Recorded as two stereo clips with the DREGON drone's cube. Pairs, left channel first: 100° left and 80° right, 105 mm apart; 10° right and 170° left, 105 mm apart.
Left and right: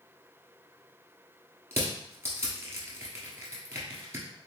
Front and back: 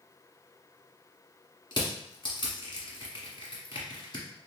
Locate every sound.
1.7 s crushing: 25° right, 1.3 m